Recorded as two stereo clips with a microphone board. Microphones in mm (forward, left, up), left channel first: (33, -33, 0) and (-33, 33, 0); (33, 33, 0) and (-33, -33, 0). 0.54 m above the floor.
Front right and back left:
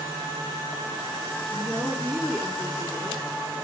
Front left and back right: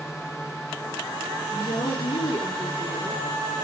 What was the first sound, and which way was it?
A woman speaking, 35° left.